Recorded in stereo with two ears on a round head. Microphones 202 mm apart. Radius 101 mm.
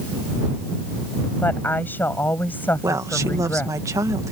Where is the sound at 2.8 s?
15° right (ahead or behind).